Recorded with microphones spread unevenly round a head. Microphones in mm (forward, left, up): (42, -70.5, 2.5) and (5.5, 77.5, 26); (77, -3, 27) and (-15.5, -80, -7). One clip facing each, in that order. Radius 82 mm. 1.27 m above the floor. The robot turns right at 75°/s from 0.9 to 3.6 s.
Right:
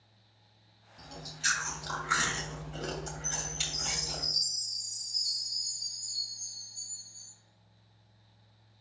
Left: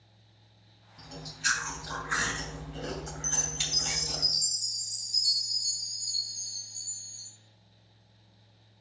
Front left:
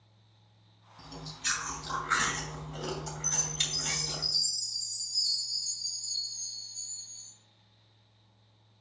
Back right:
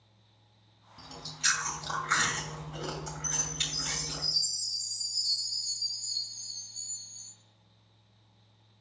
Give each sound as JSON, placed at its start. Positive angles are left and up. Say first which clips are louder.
{"t": 1.0, "sound": "chewing", "louder": "left 2 dB, back right 1 dB", "azimuth_deg": -175, "distance_m": 2.5}
{"t": 3.2, "sound": "a chime", "louder": "left 2 dB, even", "azimuth_deg": 90, "distance_m": 2.5}